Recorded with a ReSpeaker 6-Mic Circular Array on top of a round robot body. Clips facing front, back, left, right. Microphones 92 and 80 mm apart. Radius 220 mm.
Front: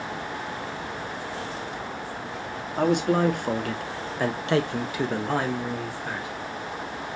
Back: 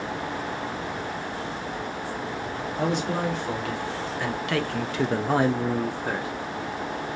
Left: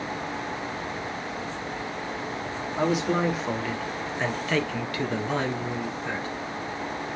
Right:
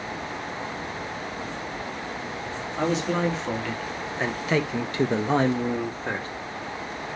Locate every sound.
2.8 s a man speaking: 10° left, 1.4 m; by 6.3 s 140° right, 1.1 m